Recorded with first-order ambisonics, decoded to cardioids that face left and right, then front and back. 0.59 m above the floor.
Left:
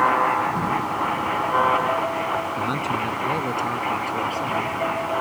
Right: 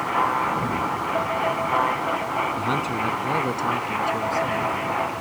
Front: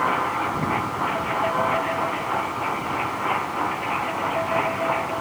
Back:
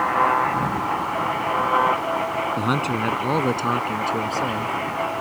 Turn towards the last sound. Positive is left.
turn(degrees=-170)